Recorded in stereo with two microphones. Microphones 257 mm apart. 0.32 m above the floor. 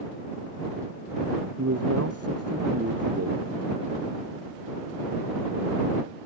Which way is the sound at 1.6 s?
70° right (ahead or behind).